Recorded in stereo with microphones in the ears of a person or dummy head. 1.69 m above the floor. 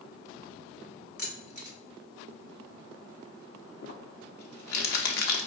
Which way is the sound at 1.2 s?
55° left (ahead or behind).